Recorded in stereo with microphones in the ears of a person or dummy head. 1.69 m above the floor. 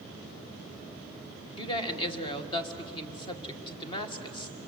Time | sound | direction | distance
1.6 | a woman speaking | 30° left (ahead or behind) | 1.7 m